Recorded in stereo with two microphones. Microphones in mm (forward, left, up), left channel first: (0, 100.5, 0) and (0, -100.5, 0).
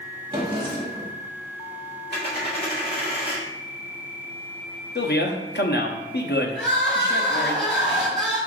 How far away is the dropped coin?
About 2 m.